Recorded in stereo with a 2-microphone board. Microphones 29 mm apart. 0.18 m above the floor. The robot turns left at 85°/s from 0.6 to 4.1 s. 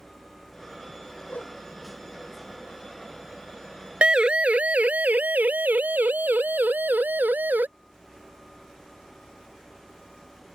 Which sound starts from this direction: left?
A whoosh, at 1.3 s.